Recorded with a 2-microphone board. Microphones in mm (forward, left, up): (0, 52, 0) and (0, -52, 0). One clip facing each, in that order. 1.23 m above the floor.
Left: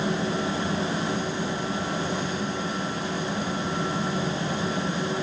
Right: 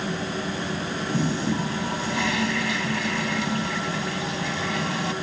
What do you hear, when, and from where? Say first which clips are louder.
1.1 s a toilet flushing: right 3 dB; 80° right